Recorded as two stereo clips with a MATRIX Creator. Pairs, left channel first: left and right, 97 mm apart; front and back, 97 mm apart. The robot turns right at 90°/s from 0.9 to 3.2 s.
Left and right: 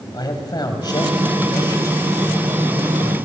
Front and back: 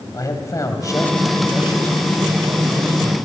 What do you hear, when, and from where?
0.1 s a man speaking: 50° left, 3 m; by 3.1 s 105° right, 3 m